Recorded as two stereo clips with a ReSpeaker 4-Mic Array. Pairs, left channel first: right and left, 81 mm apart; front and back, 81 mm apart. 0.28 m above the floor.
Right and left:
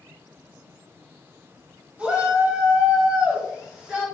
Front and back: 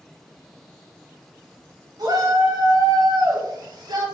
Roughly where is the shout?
Behind.